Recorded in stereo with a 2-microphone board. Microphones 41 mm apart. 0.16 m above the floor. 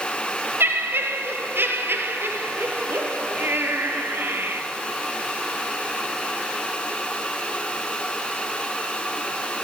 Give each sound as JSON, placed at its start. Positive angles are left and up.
{"t": 0.6, "sound": "laughter", "side_deg": -70, "distance_m": 3.0}